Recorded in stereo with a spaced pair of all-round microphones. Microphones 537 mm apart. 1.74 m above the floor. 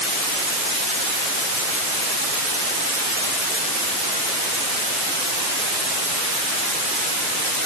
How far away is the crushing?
I don't hear crushing.